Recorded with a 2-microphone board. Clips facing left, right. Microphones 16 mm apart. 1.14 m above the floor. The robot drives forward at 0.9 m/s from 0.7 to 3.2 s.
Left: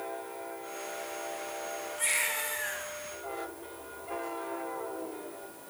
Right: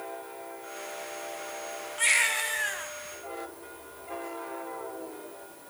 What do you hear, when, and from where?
2.0 s a baby crying: 30° right (ahead or behind), 2.5 m; by 2.9 s 25° right (ahead or behind), 3 m